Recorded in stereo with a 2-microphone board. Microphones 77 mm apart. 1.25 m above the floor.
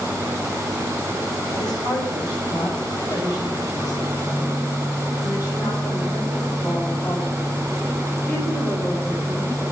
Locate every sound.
1.5 s a woman speaking: 75° left (ahead or behind), 6 m; by 9.6 s 25° left (ahead or behind), 5.5 m